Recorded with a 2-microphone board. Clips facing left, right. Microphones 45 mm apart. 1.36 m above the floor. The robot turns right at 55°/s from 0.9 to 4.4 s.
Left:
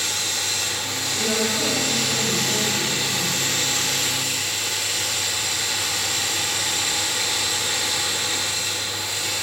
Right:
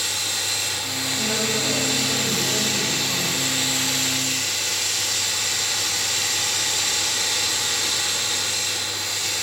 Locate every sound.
0.0 s running water: 50° left, 6.5 m; by 9.4 s 120° right, 6.5 m
1.1 s a woman speaking: 125° left, 6.5 m; by 3.4 s 110° right, 6.5 m